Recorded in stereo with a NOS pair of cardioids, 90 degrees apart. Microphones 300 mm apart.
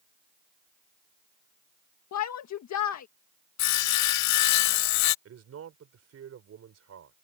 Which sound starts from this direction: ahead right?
A man speaking, at 5.2 s.